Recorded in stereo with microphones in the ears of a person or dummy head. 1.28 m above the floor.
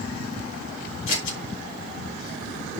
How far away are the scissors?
About 3.5 m.